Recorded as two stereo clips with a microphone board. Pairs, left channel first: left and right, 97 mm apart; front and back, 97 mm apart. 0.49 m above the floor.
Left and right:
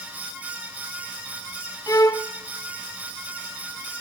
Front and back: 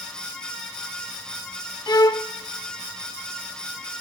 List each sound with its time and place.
1.9 s a violin: 45° left, 0.5 m